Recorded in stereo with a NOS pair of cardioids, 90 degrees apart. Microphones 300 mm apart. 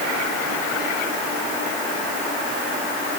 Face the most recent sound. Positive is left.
No sound to turn to.